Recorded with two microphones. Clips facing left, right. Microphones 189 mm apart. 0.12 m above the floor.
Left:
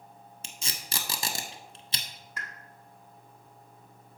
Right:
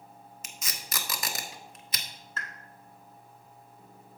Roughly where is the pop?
Centre.